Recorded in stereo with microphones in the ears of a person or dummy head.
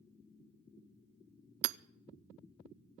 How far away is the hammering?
About 0.6 m.